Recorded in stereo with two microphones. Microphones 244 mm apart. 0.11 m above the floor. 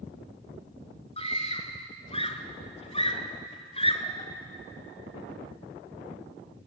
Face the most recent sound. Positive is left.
turn(degrees=25)  # may be behind; listen again after turning